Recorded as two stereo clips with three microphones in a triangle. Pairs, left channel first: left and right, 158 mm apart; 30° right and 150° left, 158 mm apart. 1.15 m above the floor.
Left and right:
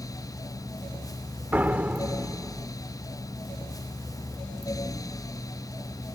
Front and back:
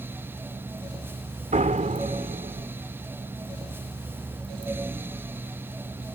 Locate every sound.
1.5 s a door slam: 170° right